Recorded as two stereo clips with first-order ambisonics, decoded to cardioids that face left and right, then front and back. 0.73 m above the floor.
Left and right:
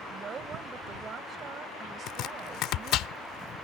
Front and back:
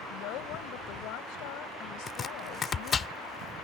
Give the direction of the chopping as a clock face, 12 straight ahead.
10 o'clock.